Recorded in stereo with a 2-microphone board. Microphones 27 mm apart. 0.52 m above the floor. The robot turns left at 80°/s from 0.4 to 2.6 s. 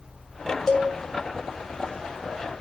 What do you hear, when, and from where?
0.7 s a cowbell: 10° left (ahead or behind), 1.9 m; by 0.9 s 30° left (ahead or behind), 1.9 m